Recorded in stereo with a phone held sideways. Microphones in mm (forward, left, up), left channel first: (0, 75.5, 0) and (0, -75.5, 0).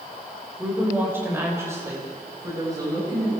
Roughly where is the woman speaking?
Centre.